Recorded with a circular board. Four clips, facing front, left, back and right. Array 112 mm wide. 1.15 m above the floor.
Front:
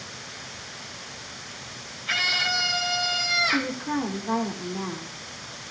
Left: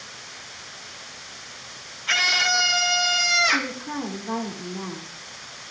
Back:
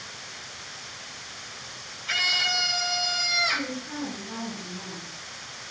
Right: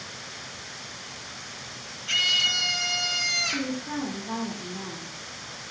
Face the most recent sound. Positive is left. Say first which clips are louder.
# left 2 dB, front 6 dB
turn(degrees=25)